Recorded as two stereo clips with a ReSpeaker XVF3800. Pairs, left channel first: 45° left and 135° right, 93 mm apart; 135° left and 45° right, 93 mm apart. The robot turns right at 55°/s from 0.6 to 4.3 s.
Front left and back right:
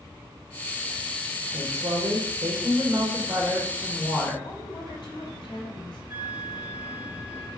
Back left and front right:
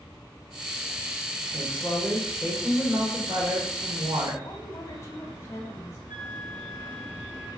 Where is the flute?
65° right, 2.5 m.